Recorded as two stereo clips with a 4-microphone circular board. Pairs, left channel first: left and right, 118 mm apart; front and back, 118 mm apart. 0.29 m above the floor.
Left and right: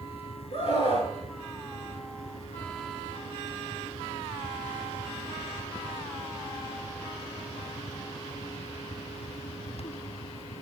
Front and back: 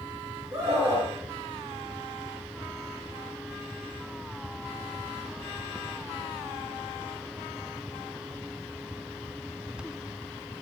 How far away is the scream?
About 4.5 m.